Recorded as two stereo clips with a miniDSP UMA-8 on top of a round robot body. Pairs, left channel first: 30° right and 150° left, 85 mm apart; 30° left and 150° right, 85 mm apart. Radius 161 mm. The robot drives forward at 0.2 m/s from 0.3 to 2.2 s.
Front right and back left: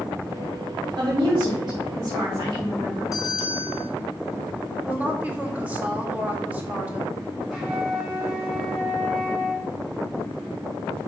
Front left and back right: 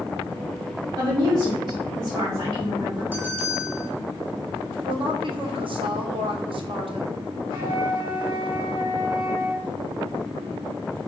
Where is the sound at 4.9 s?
140° right, 2 m.